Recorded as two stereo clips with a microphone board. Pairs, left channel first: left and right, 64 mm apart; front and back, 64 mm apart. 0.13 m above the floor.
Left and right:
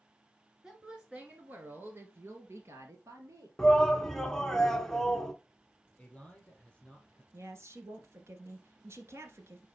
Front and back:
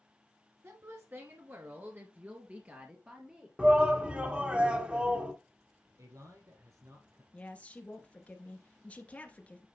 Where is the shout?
150° left, 1.2 m.